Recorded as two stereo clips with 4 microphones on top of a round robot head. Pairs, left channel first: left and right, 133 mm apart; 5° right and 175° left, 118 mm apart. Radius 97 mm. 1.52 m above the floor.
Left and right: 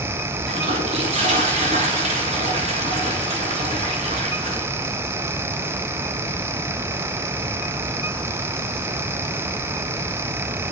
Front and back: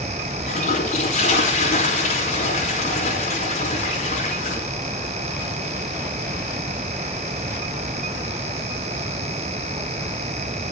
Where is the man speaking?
I don't hear a man speaking.